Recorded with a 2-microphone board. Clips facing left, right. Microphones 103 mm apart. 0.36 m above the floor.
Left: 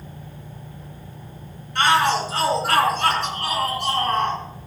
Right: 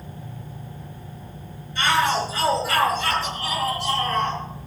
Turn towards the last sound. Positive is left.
turn(degrees=55)  # may be behind; listen again after turning